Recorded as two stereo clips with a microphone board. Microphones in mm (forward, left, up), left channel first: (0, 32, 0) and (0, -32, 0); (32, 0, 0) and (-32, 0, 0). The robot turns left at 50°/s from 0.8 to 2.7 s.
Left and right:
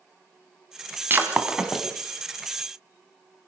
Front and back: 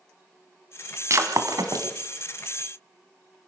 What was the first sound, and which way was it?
Breaking glass, 145° right.